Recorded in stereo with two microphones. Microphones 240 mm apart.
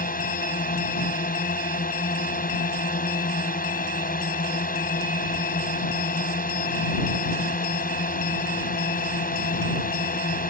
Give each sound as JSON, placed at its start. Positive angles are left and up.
{"t": 0.0, "sound": "a drone", "side_deg": 40}